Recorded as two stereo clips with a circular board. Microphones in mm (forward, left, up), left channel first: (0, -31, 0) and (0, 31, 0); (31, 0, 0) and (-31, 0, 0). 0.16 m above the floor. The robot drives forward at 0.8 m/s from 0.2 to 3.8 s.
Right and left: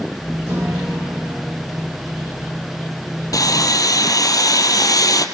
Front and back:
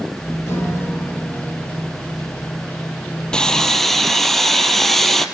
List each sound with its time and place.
0.5 s a guitar: 45° left, 8.5 m; by 1.9 s 50° left, 8 m
3.3 s sawing: 75° right, 2.5 m; by 5.2 s 85° right, 2.5 m